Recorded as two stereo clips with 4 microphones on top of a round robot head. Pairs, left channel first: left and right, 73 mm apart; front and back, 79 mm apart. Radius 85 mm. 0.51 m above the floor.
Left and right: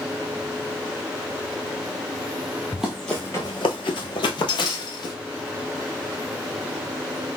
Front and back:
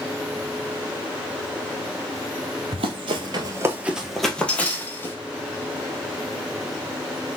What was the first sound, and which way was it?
Running footsteps, 170° right.